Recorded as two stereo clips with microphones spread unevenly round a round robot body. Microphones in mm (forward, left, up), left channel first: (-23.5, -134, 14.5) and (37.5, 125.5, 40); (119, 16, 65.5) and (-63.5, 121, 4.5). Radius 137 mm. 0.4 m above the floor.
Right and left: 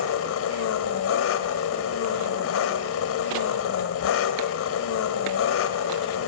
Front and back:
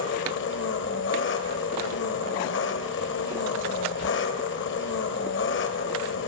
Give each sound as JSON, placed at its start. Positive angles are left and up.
{"t": 0.0, "sound": "an engine running", "azimuth_deg": -75, "distance_m": 1.4}